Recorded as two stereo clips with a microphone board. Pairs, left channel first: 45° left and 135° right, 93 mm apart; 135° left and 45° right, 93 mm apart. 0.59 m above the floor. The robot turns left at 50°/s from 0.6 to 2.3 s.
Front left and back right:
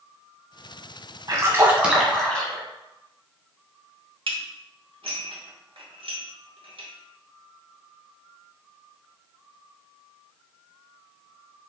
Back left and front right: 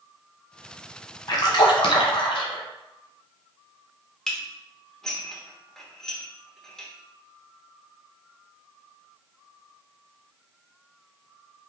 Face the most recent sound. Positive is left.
turn(degrees=-140)